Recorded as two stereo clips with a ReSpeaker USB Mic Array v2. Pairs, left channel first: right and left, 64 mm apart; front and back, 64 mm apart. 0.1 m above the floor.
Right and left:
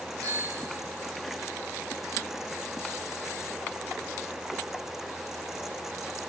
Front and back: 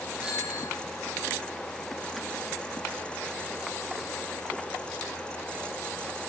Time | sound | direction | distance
0.2 | a bicycle bell | 105° left | 8.5 m